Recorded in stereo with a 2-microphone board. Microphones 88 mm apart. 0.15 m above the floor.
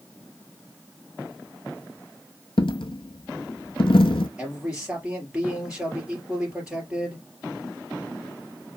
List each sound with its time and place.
2.6 s a dropped coin: 75° left (ahead or behind), 0.6 m
4.4 s a man speaking: 10° right (ahead or behind), 3.5 m